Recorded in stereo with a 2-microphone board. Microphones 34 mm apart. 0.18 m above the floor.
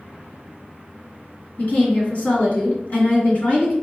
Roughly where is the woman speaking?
Left.